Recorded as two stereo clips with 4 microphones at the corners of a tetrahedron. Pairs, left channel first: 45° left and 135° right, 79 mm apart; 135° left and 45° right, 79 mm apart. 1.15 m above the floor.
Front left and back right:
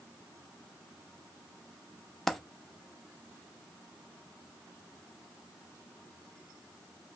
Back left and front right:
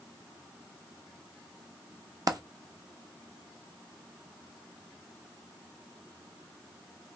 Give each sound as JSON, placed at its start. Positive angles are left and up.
{"t": 2.3, "sound": "a dropped coin", "azimuth_deg": -45, "distance_m": 0.6}